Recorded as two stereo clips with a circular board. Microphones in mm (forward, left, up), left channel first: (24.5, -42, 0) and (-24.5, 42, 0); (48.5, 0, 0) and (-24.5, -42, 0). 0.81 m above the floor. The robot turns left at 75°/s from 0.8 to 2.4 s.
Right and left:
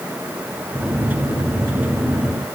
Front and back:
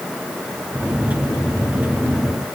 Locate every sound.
Only background noise.